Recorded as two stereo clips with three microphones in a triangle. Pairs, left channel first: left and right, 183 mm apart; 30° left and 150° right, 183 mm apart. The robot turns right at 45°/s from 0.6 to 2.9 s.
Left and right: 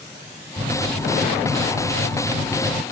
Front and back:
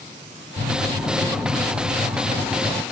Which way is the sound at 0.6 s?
130° right.